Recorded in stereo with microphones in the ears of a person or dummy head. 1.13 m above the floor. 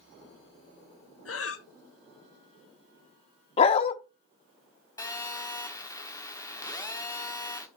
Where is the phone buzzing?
20° left (ahead or behind), 1.2 m.